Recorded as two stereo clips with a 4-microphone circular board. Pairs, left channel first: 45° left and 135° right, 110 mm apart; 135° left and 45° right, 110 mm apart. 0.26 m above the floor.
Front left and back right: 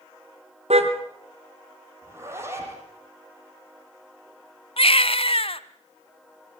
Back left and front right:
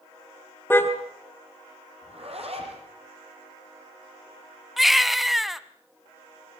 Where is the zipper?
70° right, 7 m.